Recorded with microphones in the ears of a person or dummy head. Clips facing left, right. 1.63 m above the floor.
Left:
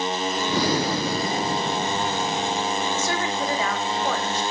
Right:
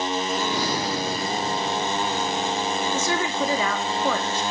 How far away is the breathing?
About 0.8 m.